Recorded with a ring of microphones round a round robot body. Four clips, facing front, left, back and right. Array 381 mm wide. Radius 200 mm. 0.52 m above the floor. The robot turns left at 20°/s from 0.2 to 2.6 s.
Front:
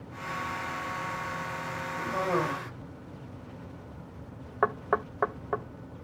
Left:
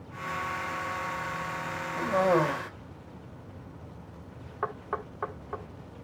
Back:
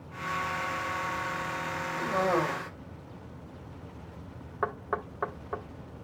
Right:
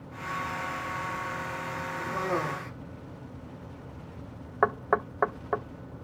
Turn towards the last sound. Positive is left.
turn(degrees=-60)